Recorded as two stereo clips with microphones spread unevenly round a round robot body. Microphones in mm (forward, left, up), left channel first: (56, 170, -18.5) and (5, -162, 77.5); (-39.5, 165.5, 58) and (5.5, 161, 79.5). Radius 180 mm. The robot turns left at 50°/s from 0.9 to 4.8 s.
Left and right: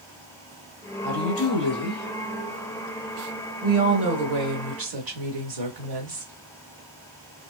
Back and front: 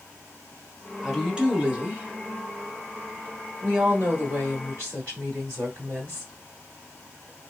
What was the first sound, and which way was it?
A woman speaking, 105° left.